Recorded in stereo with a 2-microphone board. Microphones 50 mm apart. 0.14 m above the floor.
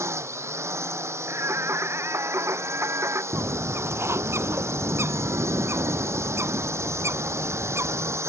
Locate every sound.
0.0 s a drone: 75° right (ahead or behind)
1.3 s singing: 70° right (ahead or behind)
3.3 s a bird: 65° right (ahead or behind)